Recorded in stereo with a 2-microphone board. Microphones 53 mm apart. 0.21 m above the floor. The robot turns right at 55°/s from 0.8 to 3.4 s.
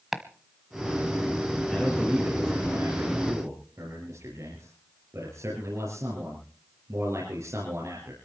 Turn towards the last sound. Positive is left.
turn(degrees=-85)